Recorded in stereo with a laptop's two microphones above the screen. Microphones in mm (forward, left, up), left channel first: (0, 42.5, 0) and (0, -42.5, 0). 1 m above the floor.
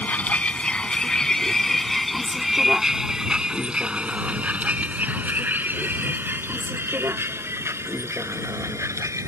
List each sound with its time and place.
0.0 s a vehicle: 20° left (ahead or behind); by 9.3 s 35° right (ahead or behind)